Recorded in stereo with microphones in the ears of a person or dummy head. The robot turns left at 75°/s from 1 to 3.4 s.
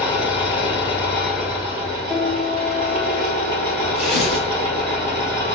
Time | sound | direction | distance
0.0 | an engine running | 20° left | 1.6 m
2.1 | a piano | 10° right | 1.8 m
4.0 | tearing paper | 5° right (ahead or behind) | 0.9 m